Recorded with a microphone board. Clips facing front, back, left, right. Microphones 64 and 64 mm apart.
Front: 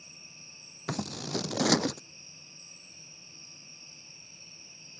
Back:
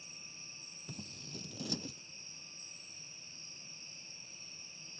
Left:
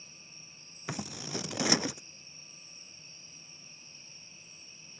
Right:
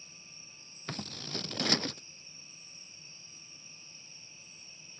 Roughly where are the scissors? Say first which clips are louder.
Front 16 dB, left 3 dB; ahead.